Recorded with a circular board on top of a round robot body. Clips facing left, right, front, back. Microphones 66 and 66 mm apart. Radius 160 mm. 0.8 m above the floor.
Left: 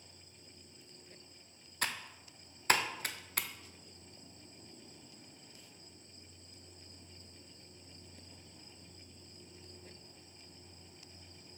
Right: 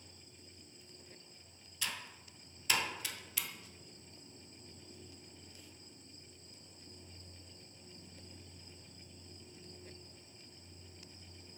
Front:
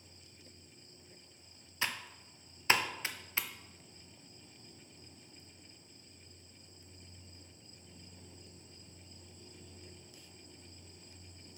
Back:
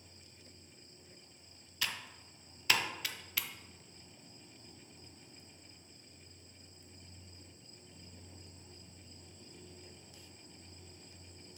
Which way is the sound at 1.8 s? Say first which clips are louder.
Left 4 dB, front 2 dB; 60° left.